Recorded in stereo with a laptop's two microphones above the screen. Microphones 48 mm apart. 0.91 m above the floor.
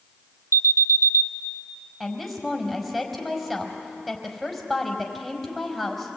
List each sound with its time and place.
0.5 s an alarm: 85° right, 0.6 m
2.0 s a woman speaking: centre (ahead or behind), 4.5 m